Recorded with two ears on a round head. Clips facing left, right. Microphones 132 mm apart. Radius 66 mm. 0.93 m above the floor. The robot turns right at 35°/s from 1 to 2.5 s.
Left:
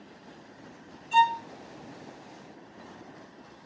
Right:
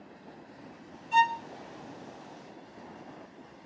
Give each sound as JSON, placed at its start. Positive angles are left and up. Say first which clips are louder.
{"t": 1.1, "sound": "a violin", "louder": "left 2 dB", "side_deg": 45, "distance_m": 1.8}